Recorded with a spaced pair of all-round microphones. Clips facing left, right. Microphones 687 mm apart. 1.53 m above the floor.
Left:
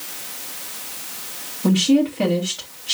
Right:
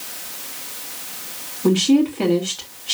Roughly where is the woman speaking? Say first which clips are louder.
Right 1 dB; centre.